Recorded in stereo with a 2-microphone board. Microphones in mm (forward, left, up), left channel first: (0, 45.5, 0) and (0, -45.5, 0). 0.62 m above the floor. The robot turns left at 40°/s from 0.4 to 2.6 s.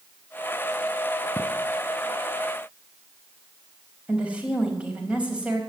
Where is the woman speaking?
15° right (ahead or behind), 3.5 m.